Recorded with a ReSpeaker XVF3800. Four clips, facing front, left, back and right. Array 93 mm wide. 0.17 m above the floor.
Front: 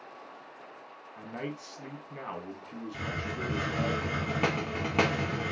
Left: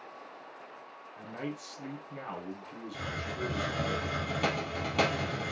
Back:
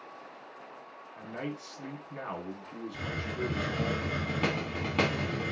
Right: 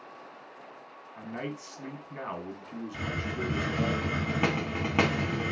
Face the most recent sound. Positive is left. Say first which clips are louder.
# right 3 dB, even
turn(degrees=-65)